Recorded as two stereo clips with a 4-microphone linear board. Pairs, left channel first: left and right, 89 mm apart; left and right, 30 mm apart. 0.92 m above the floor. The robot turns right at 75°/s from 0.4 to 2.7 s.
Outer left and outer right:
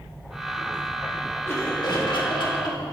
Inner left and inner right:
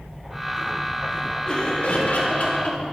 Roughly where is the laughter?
Ahead left.